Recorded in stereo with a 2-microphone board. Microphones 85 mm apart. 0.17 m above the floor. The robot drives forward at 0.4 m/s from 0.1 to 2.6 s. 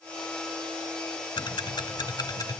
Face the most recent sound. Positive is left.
turn(degrees=45)  # may be behind; listen again after turning